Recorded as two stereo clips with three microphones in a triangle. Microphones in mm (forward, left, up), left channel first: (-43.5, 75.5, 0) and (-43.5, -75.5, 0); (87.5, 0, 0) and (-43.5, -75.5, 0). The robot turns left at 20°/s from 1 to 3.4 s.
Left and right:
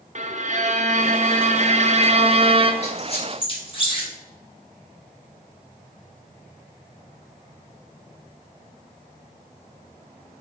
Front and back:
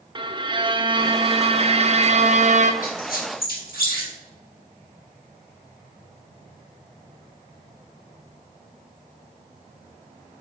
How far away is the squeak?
About 1.9 m.